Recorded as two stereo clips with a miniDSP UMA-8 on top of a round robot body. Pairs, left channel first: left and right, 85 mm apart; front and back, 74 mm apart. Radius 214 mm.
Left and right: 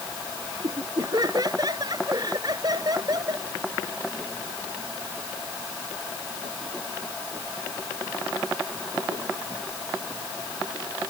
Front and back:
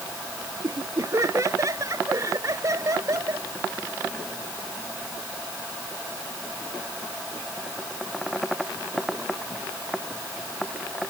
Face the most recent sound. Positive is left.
turn(degrees=-135)